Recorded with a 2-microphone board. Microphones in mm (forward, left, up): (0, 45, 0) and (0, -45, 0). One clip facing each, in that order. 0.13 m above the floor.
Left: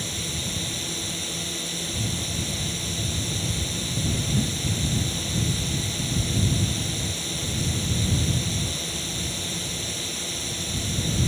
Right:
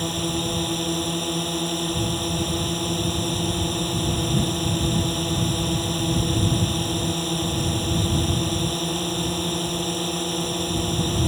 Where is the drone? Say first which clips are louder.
Right 8 dB; 50° right (ahead or behind).